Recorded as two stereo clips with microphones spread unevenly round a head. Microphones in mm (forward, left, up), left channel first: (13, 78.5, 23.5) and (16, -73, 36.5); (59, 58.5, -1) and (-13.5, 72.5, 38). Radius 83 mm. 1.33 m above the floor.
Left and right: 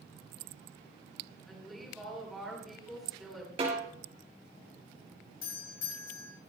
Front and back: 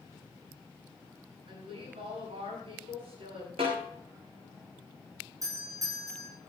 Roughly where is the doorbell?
Behind left.